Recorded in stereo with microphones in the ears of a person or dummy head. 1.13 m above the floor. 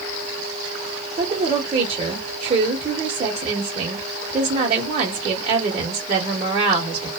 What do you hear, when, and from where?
1.2 s a woman speaking: 30° right (ahead or behind), 0.8 m